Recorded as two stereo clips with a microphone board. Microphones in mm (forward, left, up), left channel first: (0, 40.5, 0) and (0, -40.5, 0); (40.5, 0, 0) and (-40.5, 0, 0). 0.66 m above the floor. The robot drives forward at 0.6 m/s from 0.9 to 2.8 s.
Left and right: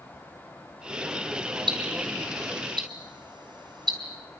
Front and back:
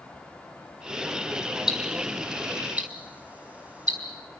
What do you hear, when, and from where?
1.7 s ticking: 100° right, 3.5 m; by 4.0 s 110° right, 3.5 m